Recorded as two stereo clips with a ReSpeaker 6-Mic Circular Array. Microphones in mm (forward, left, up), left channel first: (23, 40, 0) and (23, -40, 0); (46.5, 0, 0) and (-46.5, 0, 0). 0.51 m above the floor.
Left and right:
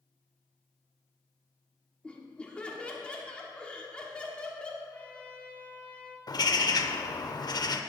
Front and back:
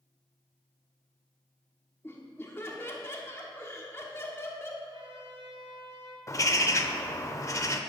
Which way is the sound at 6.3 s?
55° left.